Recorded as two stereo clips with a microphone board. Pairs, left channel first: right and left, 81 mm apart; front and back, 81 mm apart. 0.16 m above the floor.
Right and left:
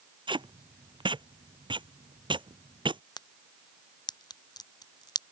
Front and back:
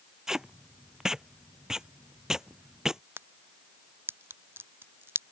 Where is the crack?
120° right.